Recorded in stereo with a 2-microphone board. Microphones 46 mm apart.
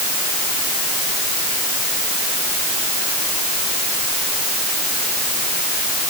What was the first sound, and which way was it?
Only background noise.